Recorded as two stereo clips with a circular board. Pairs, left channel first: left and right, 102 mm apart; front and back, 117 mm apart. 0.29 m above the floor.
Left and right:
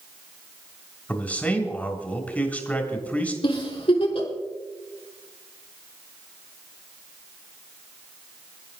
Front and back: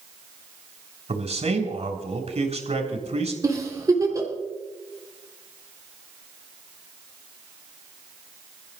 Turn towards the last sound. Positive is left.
turn(degrees=120)